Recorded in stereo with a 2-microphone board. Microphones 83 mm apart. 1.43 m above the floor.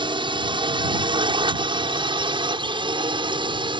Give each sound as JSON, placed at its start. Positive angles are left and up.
{"t": 0.0, "sound": "a drone", "side_deg": -75}